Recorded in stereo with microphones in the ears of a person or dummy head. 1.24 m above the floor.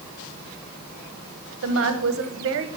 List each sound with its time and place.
1.6 s a woman speaking: 75° right (ahead or behind), 0.9 m